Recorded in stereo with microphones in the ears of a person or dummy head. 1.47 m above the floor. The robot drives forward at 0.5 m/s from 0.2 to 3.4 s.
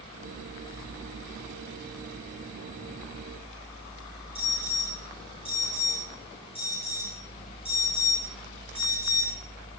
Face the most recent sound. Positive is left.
turn(degrees=25)  # may be behind; listen again after turning